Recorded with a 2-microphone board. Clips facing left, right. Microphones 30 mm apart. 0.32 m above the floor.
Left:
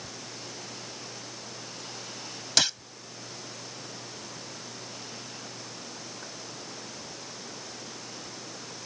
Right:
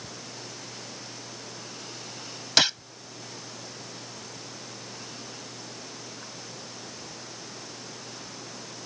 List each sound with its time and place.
2.6 s a gunshot: 15° right (ahead or behind)